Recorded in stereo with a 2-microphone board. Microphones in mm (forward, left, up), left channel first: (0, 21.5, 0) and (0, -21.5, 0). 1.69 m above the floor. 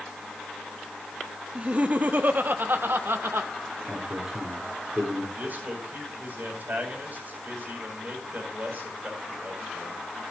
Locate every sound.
1.6 s laughter: 30° right (ahead or behind), 1.1 m; by 3.5 s 70° right (ahead or behind), 1.9 m
3.9 s a man speaking: 20° right (ahead or behind), 5 m
5.3 s a man speaking: 45° right (ahead or behind), 8 m